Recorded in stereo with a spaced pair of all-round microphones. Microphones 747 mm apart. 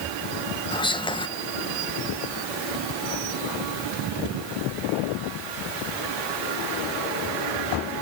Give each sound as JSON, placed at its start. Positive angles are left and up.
{"t": 0.7, "sound": "whispering", "side_deg": 5, "distance_m": 0.7}